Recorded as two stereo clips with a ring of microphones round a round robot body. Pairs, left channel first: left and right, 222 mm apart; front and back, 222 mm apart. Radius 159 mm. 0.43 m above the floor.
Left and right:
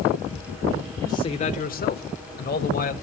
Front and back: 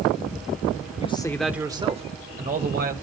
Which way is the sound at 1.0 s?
20° left.